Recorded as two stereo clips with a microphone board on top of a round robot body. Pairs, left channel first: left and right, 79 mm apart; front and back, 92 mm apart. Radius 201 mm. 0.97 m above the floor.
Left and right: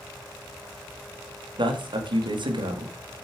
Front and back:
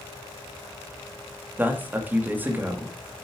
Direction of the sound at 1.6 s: 110° right.